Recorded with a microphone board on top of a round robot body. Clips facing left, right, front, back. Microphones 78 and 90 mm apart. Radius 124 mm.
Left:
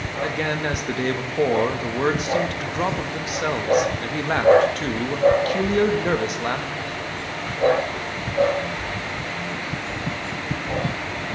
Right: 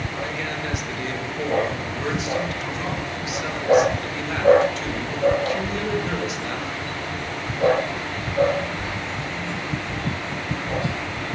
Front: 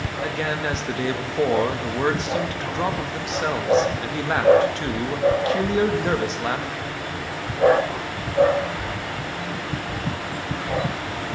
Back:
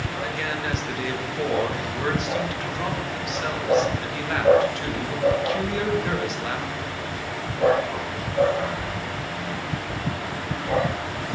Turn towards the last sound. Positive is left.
turn(degrees=55)